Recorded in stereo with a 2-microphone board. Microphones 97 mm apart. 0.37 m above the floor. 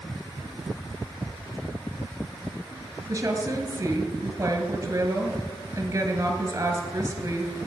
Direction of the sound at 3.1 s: 35° right (ahead or behind).